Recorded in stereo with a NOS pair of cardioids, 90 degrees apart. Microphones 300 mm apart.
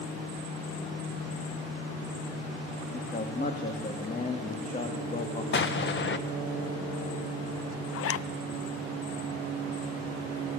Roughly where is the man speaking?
Ahead left.